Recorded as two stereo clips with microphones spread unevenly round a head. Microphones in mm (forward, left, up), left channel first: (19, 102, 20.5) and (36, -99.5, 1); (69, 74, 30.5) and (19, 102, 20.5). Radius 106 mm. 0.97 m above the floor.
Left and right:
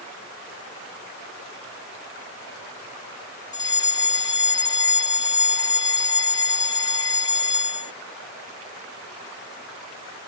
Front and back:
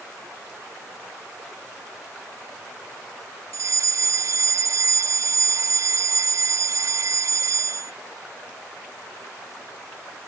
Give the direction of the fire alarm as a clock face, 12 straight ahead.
6 o'clock.